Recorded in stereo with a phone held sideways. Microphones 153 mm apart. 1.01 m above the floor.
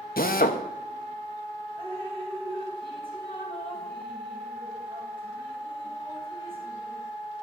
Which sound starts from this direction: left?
A drill, at 0.2 s.